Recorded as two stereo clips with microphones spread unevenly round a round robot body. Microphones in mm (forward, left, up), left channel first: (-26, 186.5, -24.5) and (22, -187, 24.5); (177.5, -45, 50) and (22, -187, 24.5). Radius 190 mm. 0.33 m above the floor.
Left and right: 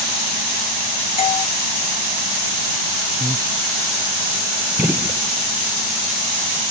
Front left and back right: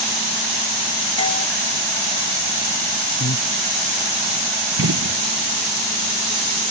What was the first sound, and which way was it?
A doorbell, 80° left.